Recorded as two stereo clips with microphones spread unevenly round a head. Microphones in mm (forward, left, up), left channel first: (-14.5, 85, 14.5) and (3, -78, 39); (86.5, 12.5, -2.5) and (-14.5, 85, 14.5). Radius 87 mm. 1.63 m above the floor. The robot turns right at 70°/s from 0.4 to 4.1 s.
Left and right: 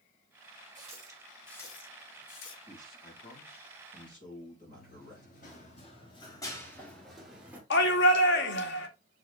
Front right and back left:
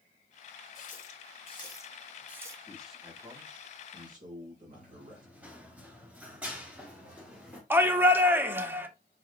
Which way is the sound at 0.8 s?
40° right.